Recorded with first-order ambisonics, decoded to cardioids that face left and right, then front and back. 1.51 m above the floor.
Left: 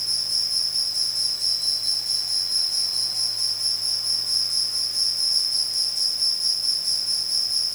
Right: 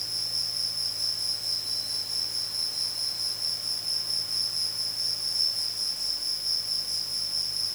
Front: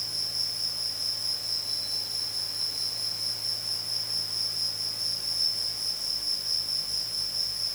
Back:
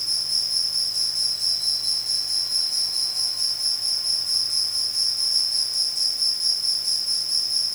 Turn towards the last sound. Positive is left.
turn(degrees=140)